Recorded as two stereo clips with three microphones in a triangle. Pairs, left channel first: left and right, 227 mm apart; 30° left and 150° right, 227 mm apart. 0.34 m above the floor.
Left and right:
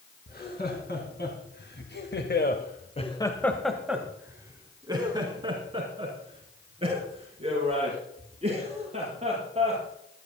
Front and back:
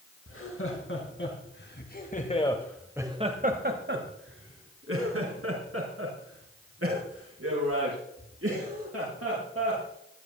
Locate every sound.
0.3 s laughter: 45° left, 4 m; by 9.8 s 150° right, 10 m